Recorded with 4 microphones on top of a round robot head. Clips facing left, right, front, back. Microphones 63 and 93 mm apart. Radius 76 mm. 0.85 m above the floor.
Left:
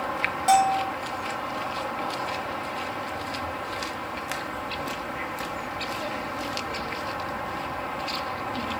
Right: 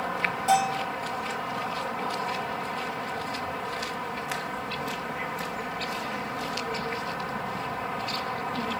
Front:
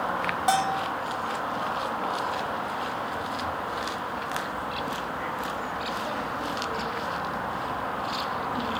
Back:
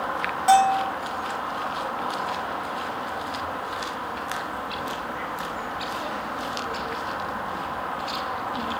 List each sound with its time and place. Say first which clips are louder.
0.5 s a bell: left 4 dB, back 8 dB; 70° left, 1.4 m